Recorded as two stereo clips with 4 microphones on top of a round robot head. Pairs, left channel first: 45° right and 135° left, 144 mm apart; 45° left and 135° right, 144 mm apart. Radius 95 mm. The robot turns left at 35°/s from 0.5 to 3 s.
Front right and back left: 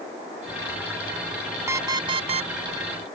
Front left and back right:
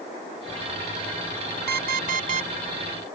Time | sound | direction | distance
1.7 | an alarm clock | 150° right | ?